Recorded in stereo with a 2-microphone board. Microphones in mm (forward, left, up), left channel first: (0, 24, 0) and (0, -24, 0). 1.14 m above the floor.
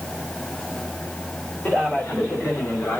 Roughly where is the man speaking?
Left.